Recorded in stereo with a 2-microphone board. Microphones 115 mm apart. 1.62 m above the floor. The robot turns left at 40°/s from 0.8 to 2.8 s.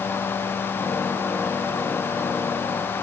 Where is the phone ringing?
I don't hear a phone ringing.